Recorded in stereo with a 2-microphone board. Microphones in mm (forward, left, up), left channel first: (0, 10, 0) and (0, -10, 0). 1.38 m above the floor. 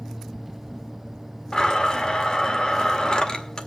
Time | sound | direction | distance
1.5 | a blender | 40° left (ahead or behind) | 1.7 m